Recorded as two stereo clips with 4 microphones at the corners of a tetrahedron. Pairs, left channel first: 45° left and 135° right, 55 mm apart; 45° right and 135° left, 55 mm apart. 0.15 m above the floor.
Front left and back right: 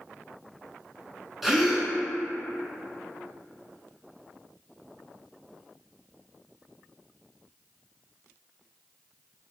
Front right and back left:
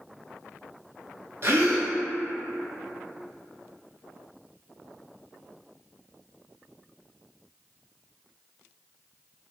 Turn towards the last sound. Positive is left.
turn(degrees=140)